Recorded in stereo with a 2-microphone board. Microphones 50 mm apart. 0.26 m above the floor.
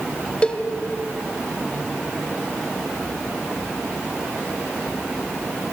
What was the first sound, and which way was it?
A cowbell, 25° left (ahead or behind).